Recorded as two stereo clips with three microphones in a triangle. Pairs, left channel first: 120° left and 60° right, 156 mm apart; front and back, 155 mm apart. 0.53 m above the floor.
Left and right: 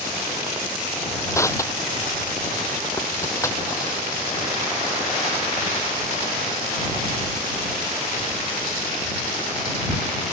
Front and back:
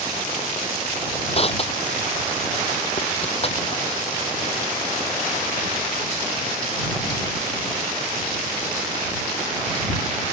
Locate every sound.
1.3 s crushing: 50° left